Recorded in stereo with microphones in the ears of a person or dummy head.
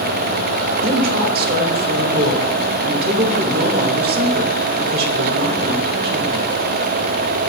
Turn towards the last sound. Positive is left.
turn(degrees=-50)  # may be behind; listen again after turning